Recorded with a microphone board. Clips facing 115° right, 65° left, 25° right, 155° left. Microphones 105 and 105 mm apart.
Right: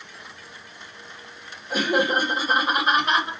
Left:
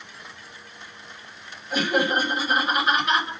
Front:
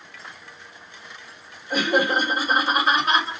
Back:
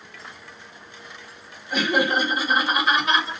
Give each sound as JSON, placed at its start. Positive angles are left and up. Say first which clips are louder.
{"t": 1.7, "sound": "laughter", "louder": "right 1 dB, front 1 dB", "azimuth_deg": -65, "distance_m": 1.4}